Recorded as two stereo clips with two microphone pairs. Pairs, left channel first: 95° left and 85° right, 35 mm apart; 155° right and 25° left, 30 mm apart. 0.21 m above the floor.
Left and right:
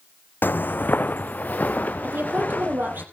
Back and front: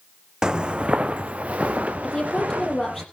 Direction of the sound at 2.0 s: 80° right.